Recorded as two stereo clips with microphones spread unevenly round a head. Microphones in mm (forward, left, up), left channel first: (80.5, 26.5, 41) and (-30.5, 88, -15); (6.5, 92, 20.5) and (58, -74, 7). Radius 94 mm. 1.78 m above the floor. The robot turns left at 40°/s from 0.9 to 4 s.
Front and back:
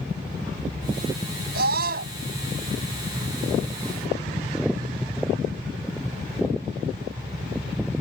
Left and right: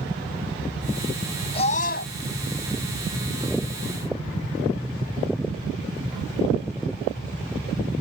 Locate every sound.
1.5 s a scream: 170° left; by 2.1 s 145° left